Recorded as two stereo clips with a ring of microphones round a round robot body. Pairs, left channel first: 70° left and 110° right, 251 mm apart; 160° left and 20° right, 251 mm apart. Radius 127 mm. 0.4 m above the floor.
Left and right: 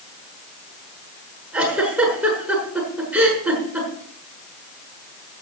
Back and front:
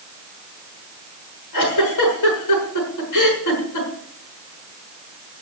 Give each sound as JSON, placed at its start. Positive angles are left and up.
{"t": 1.5, "sound": "a giggle", "azimuth_deg": 165, "distance_m": 6.0}